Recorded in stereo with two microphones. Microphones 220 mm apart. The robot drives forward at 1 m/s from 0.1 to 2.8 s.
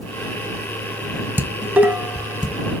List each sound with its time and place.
1.4 s dishes clattering: 10° right (ahead or behind), 1.0 m; by 2.5 s 5° right (ahead or behind), 1.9 m